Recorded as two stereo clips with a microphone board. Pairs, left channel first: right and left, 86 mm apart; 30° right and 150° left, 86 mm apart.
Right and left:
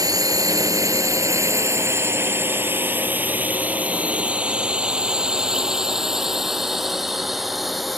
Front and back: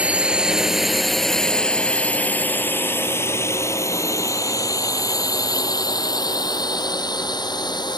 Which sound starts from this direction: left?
A drone, at 0.0 s.